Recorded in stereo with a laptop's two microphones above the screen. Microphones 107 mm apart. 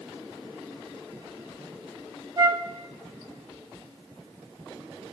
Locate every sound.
2.4 s a flute: 40° right (ahead or behind), 0.9 m